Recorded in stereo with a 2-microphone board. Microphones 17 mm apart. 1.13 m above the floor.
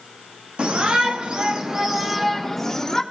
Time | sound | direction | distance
0.6 | a shout | 65° right (ahead or behind) | 2.5 m